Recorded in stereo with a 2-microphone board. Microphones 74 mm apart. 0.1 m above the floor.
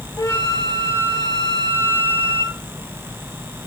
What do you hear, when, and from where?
0.2 s a flute: 40° left (ahead or behind), 2 m